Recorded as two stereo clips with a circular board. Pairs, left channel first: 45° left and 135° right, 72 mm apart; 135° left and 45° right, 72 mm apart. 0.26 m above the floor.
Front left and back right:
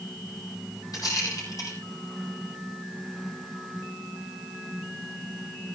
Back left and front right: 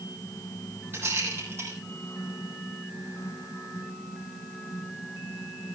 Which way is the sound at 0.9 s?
15° left.